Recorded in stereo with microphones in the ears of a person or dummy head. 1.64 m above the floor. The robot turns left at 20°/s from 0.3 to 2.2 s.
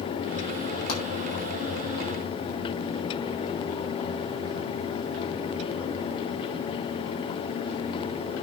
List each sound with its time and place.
0.9 s a pop: 80° left, 6 m; by 1.0 s 85° left, 6 m